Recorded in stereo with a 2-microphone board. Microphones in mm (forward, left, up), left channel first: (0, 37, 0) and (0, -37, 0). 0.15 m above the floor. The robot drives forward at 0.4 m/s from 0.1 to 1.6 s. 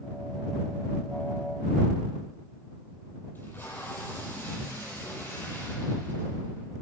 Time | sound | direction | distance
3.4 | tape being pulled | 30° left (ahead or behind) | 5 m